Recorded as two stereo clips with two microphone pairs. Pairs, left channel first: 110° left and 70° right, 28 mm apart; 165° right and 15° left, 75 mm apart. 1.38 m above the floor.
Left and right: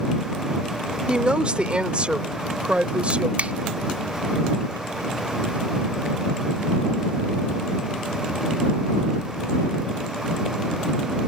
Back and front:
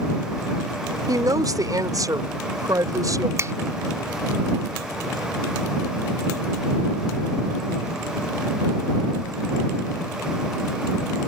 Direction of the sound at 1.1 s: 15° right.